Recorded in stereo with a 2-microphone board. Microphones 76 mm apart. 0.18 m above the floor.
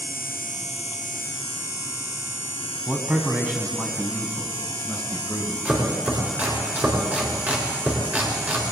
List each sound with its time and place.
2.9 s a man speaking: 15° right (ahead or behind), 1.1 m; by 5.7 s 25° right (ahead or behind), 2.5 m
5.7 s chopping: 20° right (ahead or behind), 2.5 m